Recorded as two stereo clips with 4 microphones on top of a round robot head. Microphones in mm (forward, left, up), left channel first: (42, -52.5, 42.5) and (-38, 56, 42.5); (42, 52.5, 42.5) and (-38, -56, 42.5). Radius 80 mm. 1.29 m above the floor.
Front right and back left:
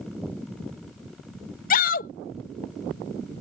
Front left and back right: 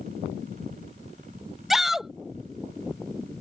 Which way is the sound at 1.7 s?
40° right.